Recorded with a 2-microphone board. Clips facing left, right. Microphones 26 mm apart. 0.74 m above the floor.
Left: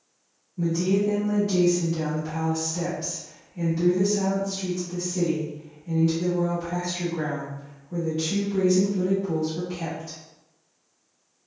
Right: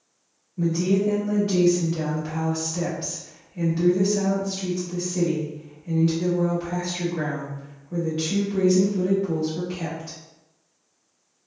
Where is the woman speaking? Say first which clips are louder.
Right 1 dB; 25° right (ahead or behind), 1.0 m.